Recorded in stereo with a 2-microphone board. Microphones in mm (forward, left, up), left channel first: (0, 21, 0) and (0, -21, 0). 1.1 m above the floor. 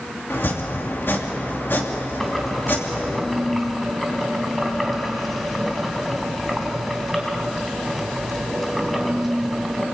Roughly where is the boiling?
Centre.